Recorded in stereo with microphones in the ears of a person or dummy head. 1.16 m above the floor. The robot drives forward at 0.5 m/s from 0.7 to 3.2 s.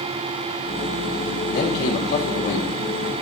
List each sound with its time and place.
1.5 s a man speaking: 50° left (ahead or behind), 2.5 m; by 2.8 s 40° left (ahead or behind), 3 m